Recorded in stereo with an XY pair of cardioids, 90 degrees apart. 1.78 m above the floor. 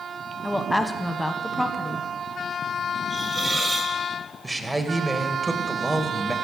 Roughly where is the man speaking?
Ahead.